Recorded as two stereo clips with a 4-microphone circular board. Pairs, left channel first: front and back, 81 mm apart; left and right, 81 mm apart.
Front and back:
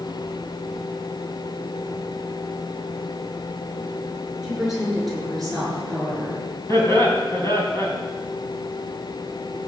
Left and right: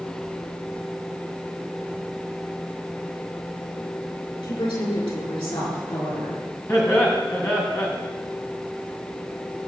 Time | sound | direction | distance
4.4 | a woman speaking | 95° left | 6.5 m
6.7 | laughter | 45° left | 3 m